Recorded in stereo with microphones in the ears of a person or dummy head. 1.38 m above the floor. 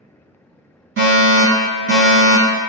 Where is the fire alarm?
60° right (ahead or behind), 1.9 m.